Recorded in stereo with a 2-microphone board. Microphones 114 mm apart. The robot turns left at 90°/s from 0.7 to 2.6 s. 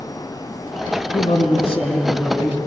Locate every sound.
1.1 s a man speaking: 110° left, 3.5 m; by 2.6 s 20° right, 3.5 m